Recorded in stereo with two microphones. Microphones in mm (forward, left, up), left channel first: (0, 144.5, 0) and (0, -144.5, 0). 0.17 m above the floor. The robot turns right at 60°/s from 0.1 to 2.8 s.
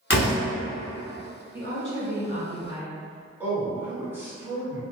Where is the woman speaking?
95° right, 1.3 m; by 3.3 s 20° right, 1.3 m.